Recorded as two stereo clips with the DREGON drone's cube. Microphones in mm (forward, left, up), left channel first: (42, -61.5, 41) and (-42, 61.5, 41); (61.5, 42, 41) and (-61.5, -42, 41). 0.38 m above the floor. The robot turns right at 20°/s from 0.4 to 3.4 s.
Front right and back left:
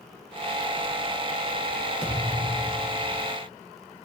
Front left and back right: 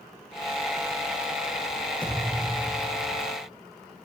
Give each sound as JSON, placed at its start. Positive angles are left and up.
{"t": 2.0, "sound": "a thud", "azimuth_deg": -50, "distance_m": 8.5}